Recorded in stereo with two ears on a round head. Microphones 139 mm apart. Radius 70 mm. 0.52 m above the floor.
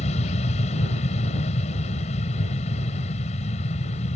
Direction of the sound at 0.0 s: 45° left (ahead or behind).